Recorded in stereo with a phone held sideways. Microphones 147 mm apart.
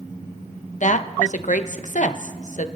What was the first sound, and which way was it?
A woman speaking, 55° left (ahead or behind).